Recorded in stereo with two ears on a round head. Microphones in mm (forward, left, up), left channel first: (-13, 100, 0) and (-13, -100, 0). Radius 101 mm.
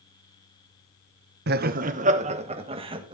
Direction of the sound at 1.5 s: 45° right (ahead or behind).